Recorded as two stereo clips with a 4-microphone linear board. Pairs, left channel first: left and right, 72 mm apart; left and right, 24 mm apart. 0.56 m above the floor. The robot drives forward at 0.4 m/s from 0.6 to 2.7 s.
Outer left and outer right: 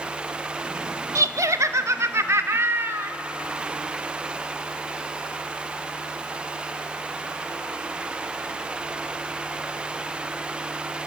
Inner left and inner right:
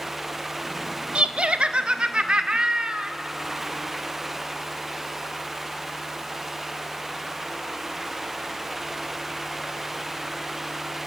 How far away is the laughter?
About 0.8 m.